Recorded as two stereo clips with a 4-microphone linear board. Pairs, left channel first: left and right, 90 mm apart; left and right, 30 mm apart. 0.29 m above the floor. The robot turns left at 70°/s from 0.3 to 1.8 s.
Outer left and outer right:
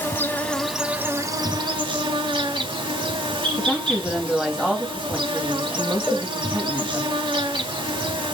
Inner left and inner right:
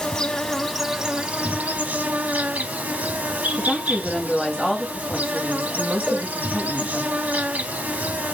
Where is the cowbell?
Centre (ahead or behind), 1.8 m.